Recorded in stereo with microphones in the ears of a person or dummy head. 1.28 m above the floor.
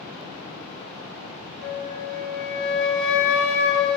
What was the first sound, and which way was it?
A flute, 70° left (ahead or behind).